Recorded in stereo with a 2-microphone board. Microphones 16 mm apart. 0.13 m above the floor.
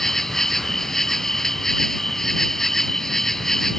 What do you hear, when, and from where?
0.0 s an insect: 30° left (ahead or behind)